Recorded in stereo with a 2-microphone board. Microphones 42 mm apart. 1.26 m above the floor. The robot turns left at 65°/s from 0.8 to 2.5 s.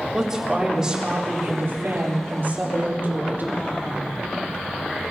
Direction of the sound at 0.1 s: 15° right.